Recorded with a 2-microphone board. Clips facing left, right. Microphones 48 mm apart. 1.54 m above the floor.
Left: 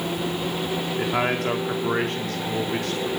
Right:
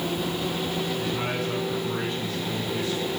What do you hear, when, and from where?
1.0 s a man speaking: 70° left (ahead or behind), 4.5 m; by 3.1 s 60° left (ahead or behind), 5.5 m